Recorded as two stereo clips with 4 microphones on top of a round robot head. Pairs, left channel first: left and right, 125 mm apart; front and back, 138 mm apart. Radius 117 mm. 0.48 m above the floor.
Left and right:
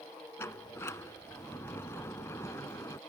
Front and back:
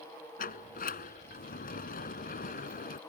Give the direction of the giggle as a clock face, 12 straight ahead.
No giggle in this recording.